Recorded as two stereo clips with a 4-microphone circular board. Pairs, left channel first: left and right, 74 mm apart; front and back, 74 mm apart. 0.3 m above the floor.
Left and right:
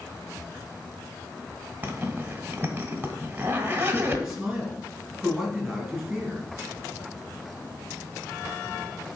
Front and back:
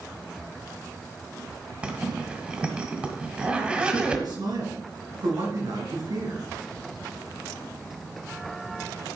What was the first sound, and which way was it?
A zipper, 125° right.